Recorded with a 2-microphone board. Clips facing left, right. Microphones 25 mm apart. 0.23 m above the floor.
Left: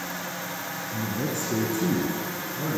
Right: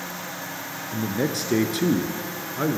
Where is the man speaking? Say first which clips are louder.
Right 5 dB; 65° right (ahead or behind), 2.5 m.